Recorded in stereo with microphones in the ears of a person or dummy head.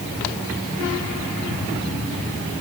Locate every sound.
Only background noise.